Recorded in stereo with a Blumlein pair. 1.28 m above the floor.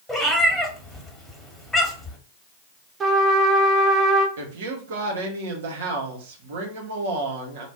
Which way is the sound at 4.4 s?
60° right.